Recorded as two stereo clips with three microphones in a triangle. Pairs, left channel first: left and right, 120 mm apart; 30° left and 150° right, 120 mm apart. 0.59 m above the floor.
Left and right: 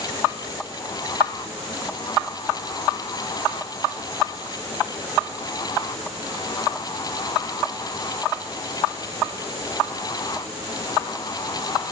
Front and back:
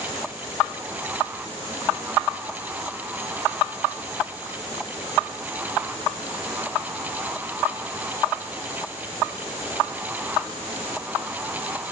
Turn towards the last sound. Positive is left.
No sound to turn to.